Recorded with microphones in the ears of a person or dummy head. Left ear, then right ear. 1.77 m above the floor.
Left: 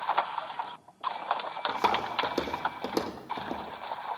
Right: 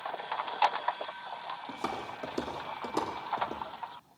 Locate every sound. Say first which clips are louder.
1.7 s footsteps: left 11 dB; 30° left (ahead or behind), 3.5 m; by 3.6 s 20° left (ahead or behind), 3 m